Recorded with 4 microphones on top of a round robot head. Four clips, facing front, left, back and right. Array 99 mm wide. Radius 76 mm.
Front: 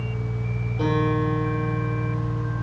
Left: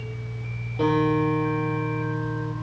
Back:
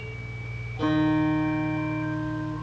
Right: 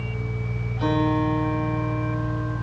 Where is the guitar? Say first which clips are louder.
Left 1 dB, back 1 dB; 70° left, 9.5 m.